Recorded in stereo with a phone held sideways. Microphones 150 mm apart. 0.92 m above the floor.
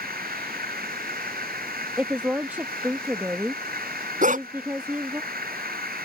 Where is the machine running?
85° right.